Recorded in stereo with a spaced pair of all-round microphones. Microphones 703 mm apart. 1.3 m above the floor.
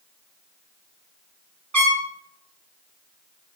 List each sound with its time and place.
1.7 s a trumpet: 25° right (ahead or behind), 0.8 m